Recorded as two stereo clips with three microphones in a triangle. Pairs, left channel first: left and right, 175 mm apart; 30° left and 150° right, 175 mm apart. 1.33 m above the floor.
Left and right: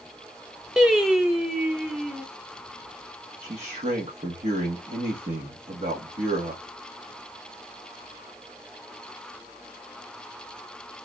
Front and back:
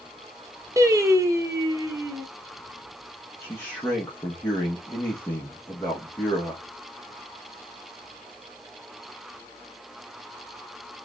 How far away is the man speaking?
About 1.5 m.